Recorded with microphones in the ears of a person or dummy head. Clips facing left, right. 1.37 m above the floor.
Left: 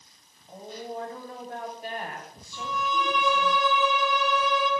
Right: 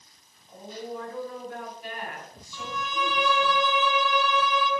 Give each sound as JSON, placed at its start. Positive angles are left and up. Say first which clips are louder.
{"t": 0.5, "sound": "a woman speaking", "louder": "even", "side_deg": 30, "distance_m": 9.0}
{"t": 2.5, "sound": "a violin", "louder": "left 3 dB", "side_deg": -55, "distance_m": 4.5}